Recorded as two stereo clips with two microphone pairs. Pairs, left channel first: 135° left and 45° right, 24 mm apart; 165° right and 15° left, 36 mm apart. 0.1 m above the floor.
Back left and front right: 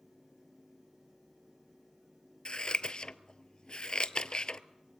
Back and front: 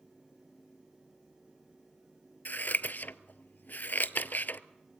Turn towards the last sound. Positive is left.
turn(degrees=180)